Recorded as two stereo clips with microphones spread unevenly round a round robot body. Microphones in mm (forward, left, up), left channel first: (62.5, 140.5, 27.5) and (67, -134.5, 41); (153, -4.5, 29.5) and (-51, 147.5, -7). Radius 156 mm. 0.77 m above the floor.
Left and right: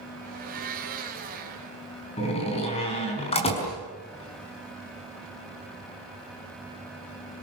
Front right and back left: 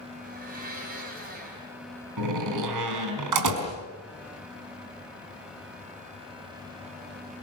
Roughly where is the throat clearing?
No throat clearing in this recording.